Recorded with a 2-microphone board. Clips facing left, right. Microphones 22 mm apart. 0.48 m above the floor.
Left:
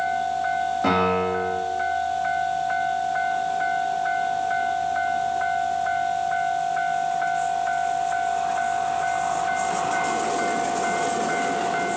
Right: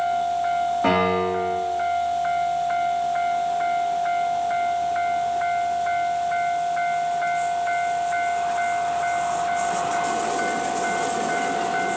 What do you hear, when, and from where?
0.8 s a piano: 5° left (ahead or behind), 4.5 m